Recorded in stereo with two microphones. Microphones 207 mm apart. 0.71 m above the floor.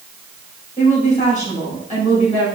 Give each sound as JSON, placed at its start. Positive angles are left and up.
{"t": 0.8, "sound": "a woman speaking", "side_deg": 35, "distance_m": 3.5}